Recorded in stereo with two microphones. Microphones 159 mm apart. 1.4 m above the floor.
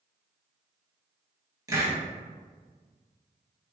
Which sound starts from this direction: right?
A hiss, at 1.7 s.